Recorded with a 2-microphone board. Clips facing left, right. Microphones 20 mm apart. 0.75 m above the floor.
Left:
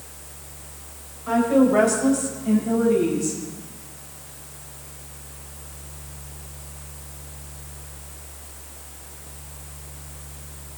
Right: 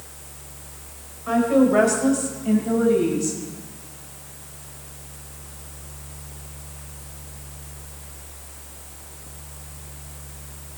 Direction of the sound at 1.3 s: 15° right (ahead or behind).